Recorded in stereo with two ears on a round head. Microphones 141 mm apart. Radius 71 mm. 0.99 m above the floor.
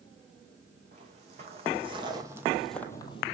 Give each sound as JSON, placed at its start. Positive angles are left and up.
{"t": 0.9, "sound": "footsteps", "side_deg": -50, "distance_m": 3.0}